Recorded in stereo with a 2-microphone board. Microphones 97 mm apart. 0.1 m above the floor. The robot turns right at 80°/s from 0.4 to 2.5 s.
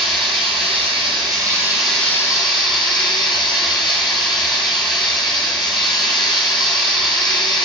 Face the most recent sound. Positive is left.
turn(degrees=50)